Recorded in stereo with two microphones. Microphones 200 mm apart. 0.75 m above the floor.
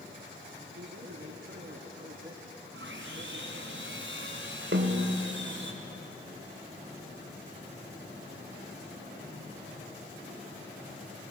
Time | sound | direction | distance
0.7 | a man speaking | 85° right | 6.5 m
2.7 | sawing | 80° right | 3.5 m
4.7 | a snare drum | 70° right (ahead or behind) | 3 m